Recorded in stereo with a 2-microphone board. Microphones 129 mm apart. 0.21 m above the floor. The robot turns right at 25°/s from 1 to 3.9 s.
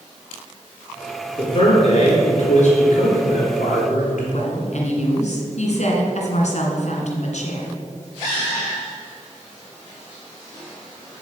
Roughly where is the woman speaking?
Left.